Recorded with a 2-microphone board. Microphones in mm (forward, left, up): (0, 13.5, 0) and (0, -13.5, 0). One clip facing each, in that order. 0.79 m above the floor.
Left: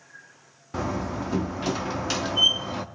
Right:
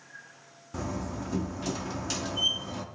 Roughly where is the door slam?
Left.